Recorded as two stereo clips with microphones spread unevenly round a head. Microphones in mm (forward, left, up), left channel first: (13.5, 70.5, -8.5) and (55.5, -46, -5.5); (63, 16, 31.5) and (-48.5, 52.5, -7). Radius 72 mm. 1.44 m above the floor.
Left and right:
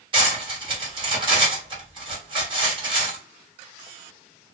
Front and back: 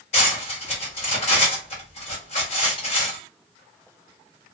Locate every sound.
0.1 s cutlery clinking: 25° right, 1.5 m